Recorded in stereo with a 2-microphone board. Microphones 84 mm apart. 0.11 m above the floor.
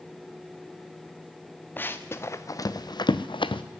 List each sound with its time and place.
1.8 s running footsteps: 25° left (ahead or behind), 1.2 m; by 3.6 s 85° left, 0.8 m